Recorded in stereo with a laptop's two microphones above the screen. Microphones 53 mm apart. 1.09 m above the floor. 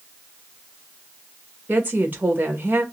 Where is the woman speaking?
35° right (ahead or behind), 1.0 m.